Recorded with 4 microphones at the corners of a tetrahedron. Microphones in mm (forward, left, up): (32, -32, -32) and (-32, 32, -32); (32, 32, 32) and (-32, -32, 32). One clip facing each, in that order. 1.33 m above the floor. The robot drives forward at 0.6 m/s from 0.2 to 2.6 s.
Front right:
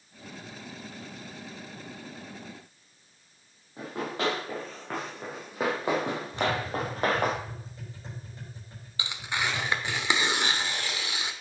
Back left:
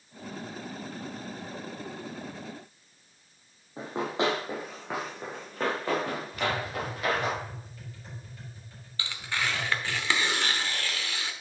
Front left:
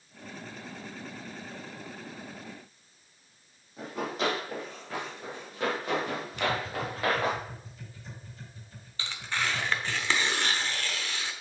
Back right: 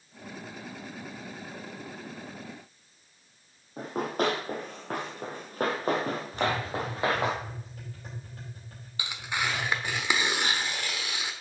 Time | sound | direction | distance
3.8 | running footsteps | 165° right | 2.5 m
6.3 | tapping | 105° right | 5 m
9.0 | tearing paper | 85° right | 1.0 m